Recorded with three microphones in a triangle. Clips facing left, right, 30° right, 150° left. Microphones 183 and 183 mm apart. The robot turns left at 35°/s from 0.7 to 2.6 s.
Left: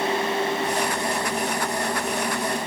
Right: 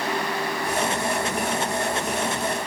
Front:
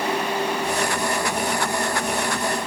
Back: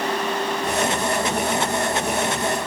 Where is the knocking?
I don't hear knocking.